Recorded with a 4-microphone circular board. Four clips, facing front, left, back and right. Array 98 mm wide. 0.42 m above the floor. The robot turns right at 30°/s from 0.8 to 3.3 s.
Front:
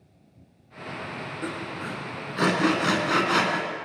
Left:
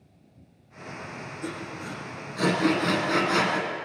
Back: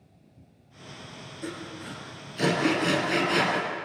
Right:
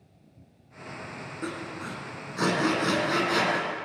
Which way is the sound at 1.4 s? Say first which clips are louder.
Right 1 dB, front 3 dB; 45° right.